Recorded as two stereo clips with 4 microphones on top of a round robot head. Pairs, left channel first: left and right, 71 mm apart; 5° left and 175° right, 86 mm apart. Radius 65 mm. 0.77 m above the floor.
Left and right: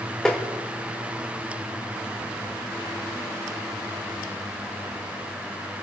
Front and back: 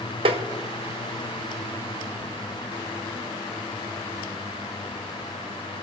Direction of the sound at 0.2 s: 175° left.